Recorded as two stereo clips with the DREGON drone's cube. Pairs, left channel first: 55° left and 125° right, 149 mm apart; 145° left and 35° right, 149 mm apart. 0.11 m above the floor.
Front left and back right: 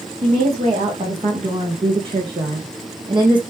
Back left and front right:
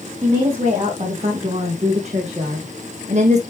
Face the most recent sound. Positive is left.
turn(degrees=-70)